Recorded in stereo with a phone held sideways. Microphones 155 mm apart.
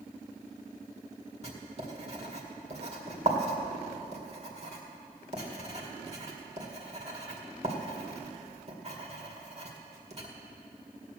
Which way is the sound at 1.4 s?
45° right (ahead or behind).